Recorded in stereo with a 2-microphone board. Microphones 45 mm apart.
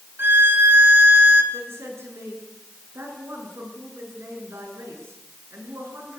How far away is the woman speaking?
About 8 m.